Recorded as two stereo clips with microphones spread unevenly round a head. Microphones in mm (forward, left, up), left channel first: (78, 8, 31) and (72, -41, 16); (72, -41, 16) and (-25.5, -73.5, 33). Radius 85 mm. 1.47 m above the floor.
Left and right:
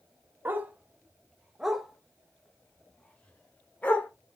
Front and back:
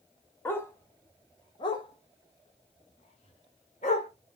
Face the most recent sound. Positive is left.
turn(degrees=45)